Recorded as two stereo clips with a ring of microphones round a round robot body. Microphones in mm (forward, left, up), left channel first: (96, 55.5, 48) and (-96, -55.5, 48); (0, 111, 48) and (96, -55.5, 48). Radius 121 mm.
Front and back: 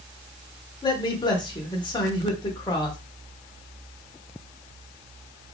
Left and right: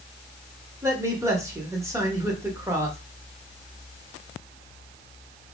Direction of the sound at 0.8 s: 10° right.